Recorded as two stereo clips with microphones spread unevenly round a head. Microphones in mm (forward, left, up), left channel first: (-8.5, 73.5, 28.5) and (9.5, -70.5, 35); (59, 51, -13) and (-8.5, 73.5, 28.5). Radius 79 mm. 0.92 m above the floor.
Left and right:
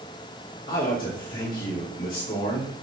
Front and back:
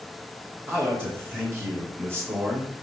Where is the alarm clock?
No alarm clock in this recording.